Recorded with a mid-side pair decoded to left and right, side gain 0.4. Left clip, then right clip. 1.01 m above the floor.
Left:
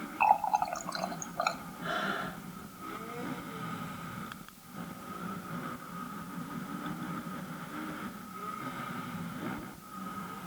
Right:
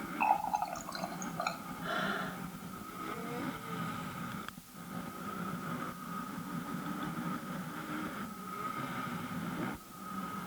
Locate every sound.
0.2 s a running tap: 40° left, 0.7 m
1.8 s breathing: 30° left, 4 m